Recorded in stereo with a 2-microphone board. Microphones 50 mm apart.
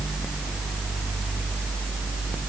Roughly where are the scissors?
No scissors in this recording.